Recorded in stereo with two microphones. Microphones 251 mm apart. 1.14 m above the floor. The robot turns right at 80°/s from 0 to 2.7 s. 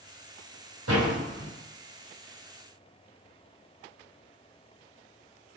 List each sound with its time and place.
0.9 s a door slam: 85° right, 4 m; by 1.5 s 30° right (ahead or behind), 4 m